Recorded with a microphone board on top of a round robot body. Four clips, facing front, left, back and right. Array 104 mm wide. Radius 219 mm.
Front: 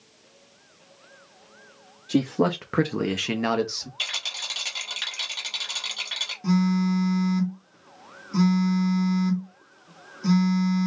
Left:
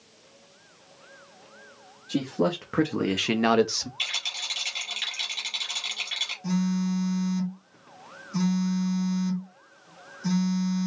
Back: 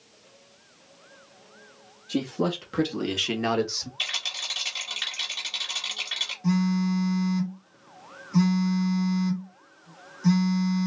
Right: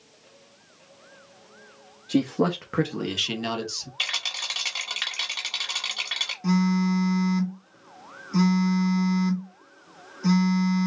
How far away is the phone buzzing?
About 2.5 m.